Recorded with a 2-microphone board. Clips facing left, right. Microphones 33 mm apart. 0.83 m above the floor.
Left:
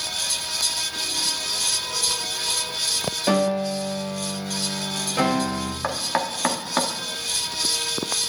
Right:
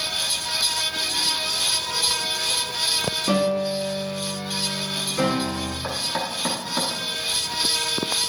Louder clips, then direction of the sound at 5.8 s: Left 4 dB; 45° left (ahead or behind).